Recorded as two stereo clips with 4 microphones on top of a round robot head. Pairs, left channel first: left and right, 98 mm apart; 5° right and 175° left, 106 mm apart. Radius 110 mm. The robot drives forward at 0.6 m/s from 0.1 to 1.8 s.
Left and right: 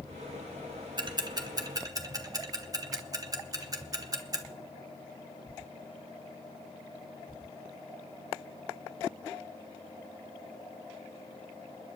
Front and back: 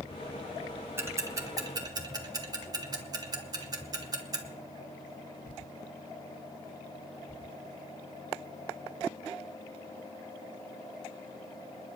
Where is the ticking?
120° right, 1.4 m; by 4.4 s 135° right, 1.6 m.